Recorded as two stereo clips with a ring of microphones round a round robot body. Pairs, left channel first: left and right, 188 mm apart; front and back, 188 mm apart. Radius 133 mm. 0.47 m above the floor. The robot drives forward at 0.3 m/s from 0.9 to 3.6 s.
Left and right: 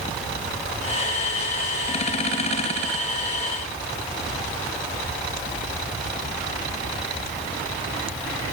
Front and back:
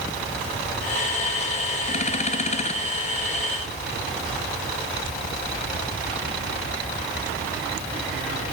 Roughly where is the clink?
I don't hear a clink.